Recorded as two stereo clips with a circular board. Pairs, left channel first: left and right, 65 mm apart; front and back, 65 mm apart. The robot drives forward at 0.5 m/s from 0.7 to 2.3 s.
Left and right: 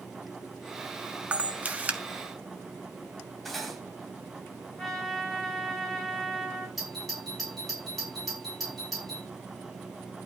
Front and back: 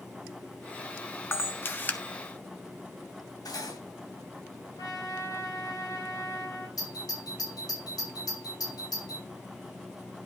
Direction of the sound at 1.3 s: 30° right.